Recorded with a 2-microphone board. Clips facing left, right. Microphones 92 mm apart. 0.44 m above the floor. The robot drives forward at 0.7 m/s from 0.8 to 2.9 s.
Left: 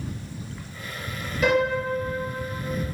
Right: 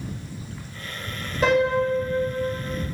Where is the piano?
35° right (ahead or behind), 2.0 m; by 2.5 s 25° right (ahead or behind), 2.5 m.